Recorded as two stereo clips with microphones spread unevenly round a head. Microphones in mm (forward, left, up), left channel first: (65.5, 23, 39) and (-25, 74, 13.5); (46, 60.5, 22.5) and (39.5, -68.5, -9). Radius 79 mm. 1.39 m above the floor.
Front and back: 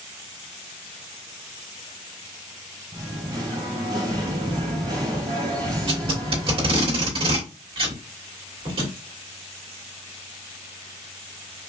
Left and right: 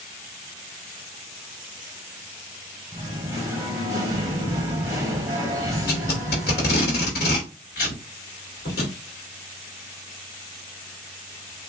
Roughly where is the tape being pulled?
Behind left.